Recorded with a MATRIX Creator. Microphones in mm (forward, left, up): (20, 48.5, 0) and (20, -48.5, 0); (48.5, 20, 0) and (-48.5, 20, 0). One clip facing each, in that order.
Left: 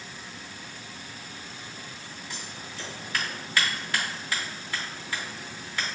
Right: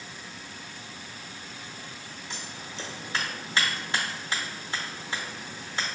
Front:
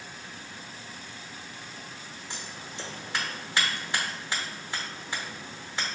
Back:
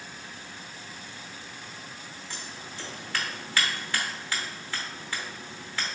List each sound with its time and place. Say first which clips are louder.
2.3 s scissors: right 2 dB, front 1 dB; 50° right, 0.8 m